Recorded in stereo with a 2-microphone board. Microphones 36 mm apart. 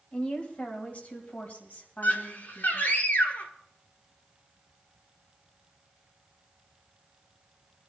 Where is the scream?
50° left (ahead or behind), 1.8 m.